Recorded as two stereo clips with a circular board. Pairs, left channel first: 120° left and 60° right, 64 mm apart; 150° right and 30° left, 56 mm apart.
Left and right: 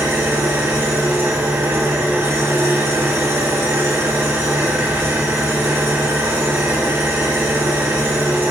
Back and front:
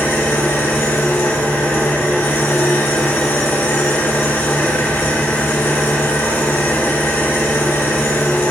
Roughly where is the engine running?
Right.